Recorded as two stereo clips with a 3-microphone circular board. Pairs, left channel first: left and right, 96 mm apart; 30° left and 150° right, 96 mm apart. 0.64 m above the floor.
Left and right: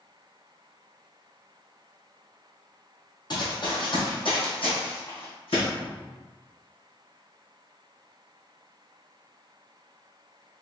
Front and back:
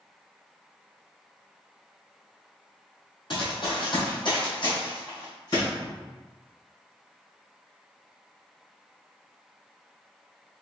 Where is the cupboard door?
65° right, 1.4 m.